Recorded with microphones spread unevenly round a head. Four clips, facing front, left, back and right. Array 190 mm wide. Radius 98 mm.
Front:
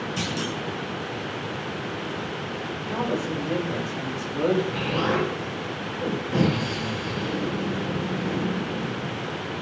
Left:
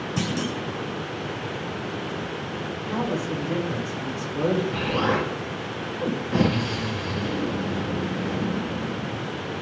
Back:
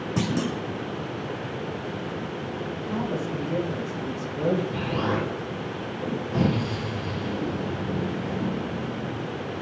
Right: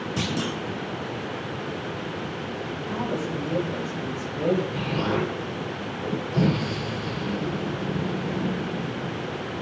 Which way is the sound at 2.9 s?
30° left.